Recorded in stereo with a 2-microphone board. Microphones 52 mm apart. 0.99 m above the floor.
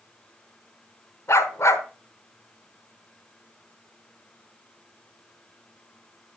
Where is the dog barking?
60° left (ahead or behind), 1.4 m.